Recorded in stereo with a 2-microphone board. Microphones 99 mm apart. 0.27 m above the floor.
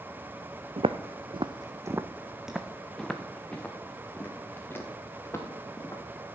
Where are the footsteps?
75° right (ahead or behind), 0.8 m; by 6.0 s 25° left (ahead or behind), 3 m.